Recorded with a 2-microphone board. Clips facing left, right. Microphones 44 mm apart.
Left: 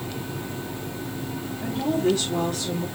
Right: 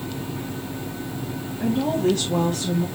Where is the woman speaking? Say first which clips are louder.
Right 2 dB; 80° right, 1.2 m; by 2.9 s 30° right (ahead or behind), 1.4 m.